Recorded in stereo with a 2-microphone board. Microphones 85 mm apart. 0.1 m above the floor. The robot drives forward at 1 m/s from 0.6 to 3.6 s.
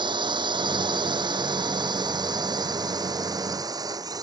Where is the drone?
70° right (ahead or behind); by 4.2 s 50° right (ahead or behind).